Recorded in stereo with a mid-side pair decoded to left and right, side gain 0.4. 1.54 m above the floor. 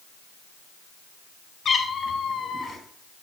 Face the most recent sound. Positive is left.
turn(degrees=55)